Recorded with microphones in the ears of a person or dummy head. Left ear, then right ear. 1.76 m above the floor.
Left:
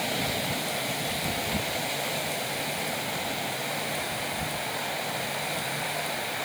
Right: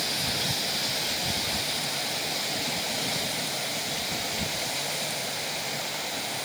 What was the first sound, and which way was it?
Only background noise.